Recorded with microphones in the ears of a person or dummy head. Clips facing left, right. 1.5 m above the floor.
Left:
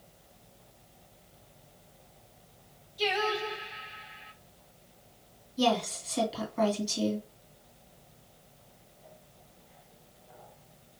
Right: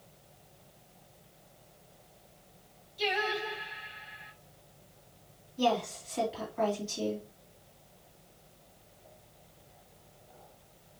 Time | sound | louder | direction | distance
3.0 | singing | left 2 dB | 5° left (ahead or behind) | 1.9 m
5.6 | a woman speaking | left 2 dB | 50° left (ahead or behind) | 2.5 m